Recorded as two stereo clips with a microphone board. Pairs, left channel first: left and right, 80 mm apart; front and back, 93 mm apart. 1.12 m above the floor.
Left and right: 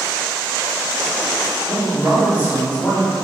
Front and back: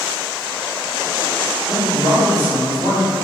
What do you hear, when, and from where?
1.7 s a man speaking: 155° left, 1.8 m